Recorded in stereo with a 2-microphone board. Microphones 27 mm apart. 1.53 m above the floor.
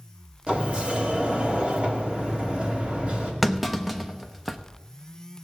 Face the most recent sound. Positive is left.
turn(degrees=-5)  # may be behind; listen again after turning